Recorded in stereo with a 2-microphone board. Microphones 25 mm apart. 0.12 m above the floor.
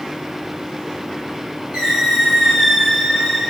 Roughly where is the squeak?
Right.